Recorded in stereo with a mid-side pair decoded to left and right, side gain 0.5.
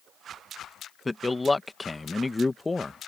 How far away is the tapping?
I don't hear tapping.